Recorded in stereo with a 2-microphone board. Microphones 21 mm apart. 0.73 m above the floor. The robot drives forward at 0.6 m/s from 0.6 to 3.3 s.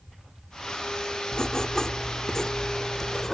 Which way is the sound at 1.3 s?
35° left (ahead or behind).